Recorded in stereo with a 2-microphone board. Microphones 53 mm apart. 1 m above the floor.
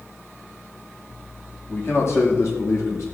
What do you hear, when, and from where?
1.7 s a man speaking: 50° left (ahead or behind), 2 m; by 3.0 s 70° left (ahead or behind), 1.6 m